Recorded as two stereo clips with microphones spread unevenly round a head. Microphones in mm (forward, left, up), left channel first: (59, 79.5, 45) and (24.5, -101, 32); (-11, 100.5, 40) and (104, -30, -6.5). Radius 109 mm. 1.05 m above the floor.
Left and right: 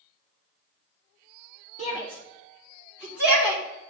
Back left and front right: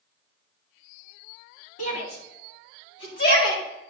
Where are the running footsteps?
I don't hear running footsteps.